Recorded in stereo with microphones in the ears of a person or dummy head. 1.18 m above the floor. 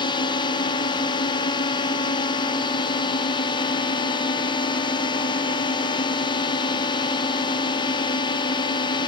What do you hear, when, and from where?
0.0 s a drone: 20° left (ahead or behind)